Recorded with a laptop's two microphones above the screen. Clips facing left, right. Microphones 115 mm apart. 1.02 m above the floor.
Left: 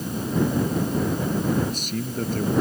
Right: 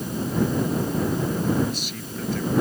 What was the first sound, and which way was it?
A man speaking, 40° left (ahead or behind).